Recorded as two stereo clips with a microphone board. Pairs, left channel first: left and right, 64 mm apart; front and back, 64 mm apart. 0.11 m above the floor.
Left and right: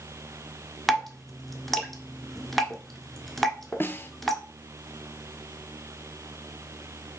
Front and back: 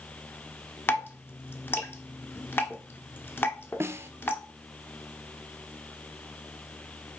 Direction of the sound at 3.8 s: 140° left.